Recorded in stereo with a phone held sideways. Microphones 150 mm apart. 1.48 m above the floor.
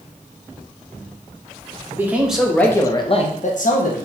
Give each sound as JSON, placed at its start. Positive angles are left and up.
{"t": 1.9, "sound": "a man speaking", "side_deg": -15, "distance_m": 0.9}